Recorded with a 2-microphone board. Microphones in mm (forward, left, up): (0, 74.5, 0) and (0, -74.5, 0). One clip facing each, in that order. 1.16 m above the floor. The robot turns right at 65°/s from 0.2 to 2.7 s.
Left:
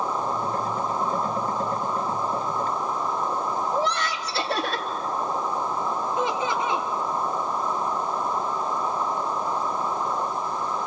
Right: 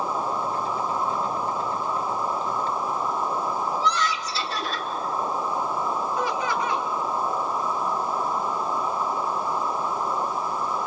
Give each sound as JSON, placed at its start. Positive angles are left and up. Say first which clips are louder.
{"t": 3.7, "sound": "laughter", "louder": "even", "side_deg": 60, "distance_m": 3.0}
{"t": 6.2, "sound": "laughter", "louder": "left 1 dB", "side_deg": 25, "distance_m": 2.5}